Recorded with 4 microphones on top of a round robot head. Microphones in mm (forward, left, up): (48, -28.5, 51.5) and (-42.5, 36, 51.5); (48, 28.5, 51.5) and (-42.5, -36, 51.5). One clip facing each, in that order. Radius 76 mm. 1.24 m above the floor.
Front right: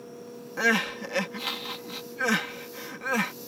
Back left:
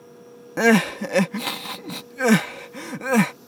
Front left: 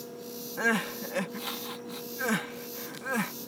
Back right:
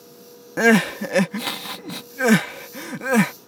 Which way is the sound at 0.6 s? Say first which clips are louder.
Back left 9 dB, back right 13 dB; 170° right.